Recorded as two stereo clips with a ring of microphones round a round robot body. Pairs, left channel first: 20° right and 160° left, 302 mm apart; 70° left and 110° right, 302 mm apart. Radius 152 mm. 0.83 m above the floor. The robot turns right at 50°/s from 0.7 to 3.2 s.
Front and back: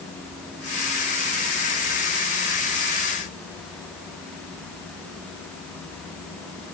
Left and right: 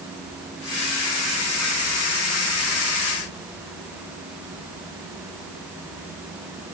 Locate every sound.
Only background noise.